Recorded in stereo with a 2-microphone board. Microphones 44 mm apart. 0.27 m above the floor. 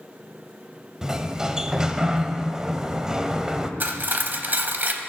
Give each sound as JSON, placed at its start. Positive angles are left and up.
{"t": 1.0, "sound": "a sliding door", "side_deg": -15, "distance_m": 0.6}
{"t": 3.8, "sound": "cutlery clinking", "side_deg": -45, "distance_m": 0.8}